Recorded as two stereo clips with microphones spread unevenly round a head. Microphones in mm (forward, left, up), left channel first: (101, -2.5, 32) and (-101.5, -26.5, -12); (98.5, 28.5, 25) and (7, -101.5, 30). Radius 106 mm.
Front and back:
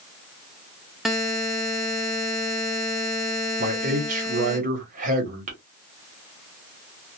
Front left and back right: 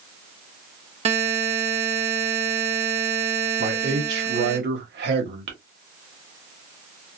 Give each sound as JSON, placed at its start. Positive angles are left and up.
{"t": 1.1, "sound": "a buzzer", "azimuth_deg": -80, "distance_m": 0.7}
{"t": 3.6, "sound": "a man speaking", "azimuth_deg": -120, "distance_m": 1.3}